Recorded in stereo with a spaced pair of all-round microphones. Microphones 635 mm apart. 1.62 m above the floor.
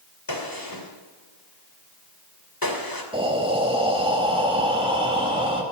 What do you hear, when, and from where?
0.3 s a gunshot: 35° left (ahead or behind), 2.5 m
3.1 s breathing: 10° right (ahead or behind), 2.5 m